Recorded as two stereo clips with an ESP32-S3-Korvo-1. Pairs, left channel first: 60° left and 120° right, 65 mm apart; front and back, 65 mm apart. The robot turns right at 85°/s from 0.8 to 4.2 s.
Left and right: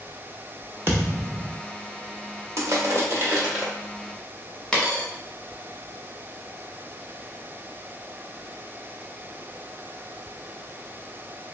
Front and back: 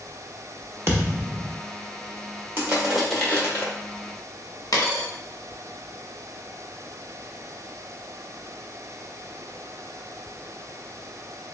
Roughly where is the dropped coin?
Ahead.